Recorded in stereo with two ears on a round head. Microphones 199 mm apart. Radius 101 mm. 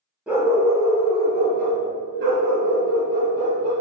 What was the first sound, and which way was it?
A dog barking, 5° right (ahead or behind).